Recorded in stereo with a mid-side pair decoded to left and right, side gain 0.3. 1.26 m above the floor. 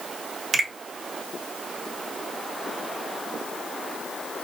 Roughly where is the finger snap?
Ahead right.